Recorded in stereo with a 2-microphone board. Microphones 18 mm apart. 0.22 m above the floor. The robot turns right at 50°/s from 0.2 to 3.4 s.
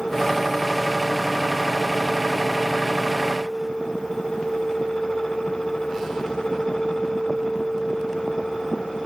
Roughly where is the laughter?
No laughter in this recording.